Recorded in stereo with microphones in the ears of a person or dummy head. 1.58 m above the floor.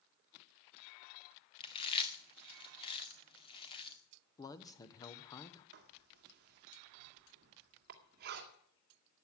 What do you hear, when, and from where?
1.6 s chewing: 35° left (ahead or behind), 1.8 m
4.4 s a man speaking: 25° left (ahead or behind), 1.2 m
5.7 s writing: 55° right (ahead or behind), 2 m